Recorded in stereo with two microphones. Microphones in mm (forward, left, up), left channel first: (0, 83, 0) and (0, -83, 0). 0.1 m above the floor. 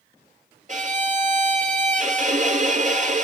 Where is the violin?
45° right (ahead or behind), 1.6 m.